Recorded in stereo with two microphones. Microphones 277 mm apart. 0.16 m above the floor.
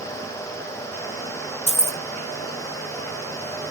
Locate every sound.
1.7 s keys jangling: 25° right (ahead or behind), 0.7 m